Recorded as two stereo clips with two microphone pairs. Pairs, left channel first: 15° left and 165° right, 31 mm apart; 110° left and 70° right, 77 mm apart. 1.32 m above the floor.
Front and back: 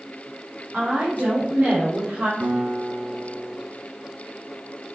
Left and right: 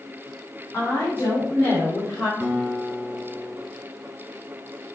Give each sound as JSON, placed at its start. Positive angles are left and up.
{"t": 0.7, "sound": "a woman speaking", "azimuth_deg": 165, "distance_m": 4.5}
{"t": 2.4, "sound": "a guitar", "azimuth_deg": -165, "distance_m": 4.0}